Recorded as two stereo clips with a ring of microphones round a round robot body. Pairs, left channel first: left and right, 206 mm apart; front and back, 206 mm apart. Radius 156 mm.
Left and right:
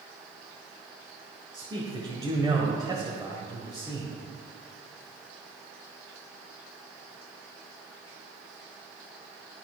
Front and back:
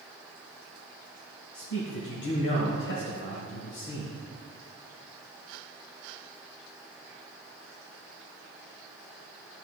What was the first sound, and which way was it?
A man speaking, 20° right.